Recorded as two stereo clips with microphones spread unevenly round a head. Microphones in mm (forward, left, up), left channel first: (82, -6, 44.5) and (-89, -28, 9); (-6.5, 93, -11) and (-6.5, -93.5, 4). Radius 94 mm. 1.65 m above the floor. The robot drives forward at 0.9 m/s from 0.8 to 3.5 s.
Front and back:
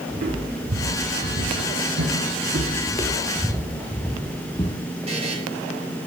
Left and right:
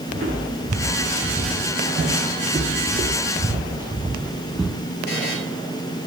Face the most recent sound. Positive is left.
turn(degrees=130)